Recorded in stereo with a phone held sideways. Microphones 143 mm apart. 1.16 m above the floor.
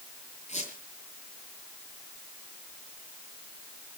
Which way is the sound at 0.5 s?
55° left (ahead or behind).